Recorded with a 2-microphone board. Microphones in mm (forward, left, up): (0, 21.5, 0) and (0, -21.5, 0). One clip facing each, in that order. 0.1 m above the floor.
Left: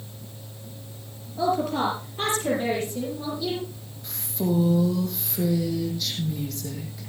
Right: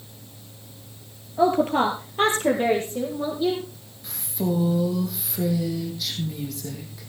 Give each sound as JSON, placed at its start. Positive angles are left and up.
{"t": 1.4, "sound": "a woman speaking", "side_deg": -40, "distance_m": 2.5}
{"t": 4.0, "sound": "a woman speaking", "side_deg": -10, "distance_m": 5.0}